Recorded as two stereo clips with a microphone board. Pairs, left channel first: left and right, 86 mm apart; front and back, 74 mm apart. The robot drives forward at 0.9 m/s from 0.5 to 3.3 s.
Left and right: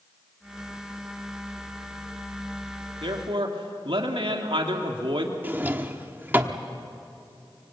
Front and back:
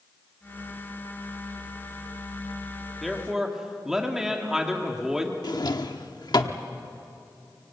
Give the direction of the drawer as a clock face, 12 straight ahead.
1 o'clock.